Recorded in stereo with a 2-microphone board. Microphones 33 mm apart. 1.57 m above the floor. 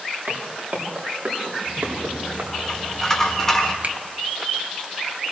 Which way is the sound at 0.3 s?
60° right (ahead or behind).